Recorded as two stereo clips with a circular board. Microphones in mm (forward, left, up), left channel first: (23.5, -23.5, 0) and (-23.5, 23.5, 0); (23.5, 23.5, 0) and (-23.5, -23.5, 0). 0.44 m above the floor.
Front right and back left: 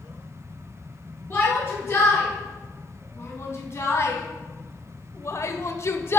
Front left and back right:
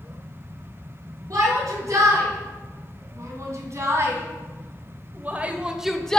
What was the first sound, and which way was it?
A shout, 100° right.